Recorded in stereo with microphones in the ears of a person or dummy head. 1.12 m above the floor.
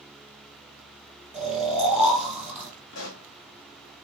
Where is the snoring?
10° right (ahead or behind), 2 m.